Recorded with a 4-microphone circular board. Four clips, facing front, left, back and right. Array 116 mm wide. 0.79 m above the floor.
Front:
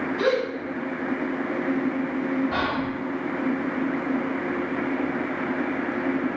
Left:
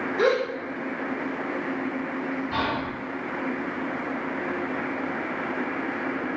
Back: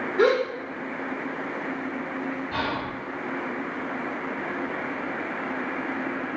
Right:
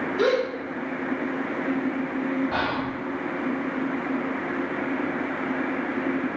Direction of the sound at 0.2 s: 170° left.